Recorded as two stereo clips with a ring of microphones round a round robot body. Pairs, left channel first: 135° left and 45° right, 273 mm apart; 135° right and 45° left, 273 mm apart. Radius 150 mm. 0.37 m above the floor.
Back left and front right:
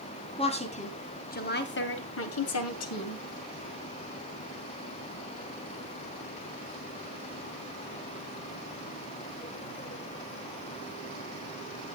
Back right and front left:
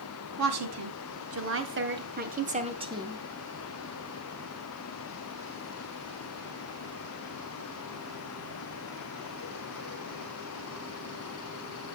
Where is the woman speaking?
65° left, 3 m; by 3.2 s 125° left, 2 m.